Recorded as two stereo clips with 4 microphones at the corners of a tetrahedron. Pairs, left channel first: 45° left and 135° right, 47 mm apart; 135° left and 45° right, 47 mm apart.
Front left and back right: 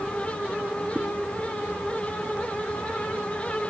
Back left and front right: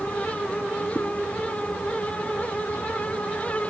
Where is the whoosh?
160° left, 4 m.